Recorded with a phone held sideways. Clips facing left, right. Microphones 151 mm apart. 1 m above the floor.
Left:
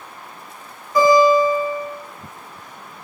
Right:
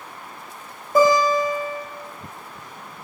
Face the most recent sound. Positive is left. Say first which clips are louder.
# left 4 dB
turn(degrees=-45)  # may be behind; listen again after turning